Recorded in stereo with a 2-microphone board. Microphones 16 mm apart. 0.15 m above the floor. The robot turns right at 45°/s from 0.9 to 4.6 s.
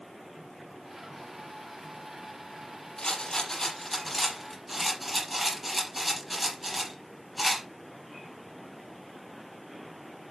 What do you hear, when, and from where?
3.0 s a rattle: 55° left (ahead or behind), 4.5 m; by 7.7 s 15° right (ahead or behind), 4.5 m